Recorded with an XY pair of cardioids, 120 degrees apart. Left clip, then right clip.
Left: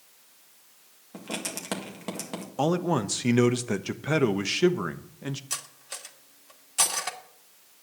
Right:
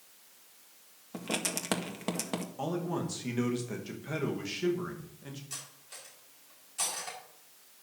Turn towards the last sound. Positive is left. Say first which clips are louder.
# left 8 dB
turn(degrees=60)